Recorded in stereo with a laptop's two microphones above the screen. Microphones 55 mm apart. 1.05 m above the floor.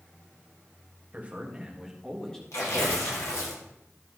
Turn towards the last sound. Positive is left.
turn(degrees=65)  # may be behind; listen again after turning